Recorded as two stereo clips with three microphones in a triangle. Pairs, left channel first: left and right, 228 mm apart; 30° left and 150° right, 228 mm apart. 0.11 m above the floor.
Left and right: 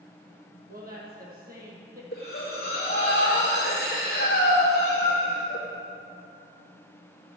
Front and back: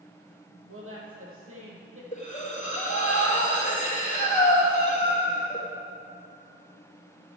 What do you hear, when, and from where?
0.7 s a woman speaking: 140° right, 3.5 m
2.1 s breathing: 70° left, 2.5 m